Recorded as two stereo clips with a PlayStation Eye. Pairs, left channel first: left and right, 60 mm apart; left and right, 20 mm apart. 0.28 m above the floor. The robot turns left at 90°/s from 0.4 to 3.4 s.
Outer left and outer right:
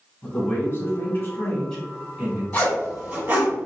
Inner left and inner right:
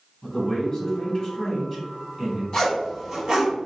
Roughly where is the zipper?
Left.